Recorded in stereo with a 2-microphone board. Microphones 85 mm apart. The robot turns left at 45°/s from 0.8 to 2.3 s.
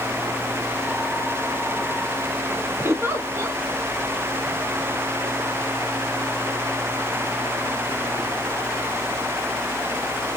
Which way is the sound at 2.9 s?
30° right (ahead or behind).